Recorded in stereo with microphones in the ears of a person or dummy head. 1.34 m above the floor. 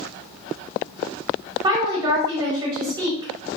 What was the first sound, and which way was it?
A woman speaking, 20° right (ahead or behind).